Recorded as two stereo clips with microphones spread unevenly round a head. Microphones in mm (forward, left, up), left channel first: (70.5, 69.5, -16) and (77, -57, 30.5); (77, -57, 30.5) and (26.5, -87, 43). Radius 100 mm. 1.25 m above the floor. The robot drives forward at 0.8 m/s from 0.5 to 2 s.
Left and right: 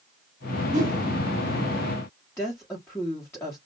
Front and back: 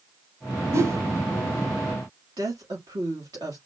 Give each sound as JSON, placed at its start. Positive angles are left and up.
{"t": 0.7, "sound": "a whoosh", "azimuth_deg": -125, "distance_m": 2.5}
{"t": 2.4, "sound": "a woman speaking", "azimuth_deg": 170, "distance_m": 2.0}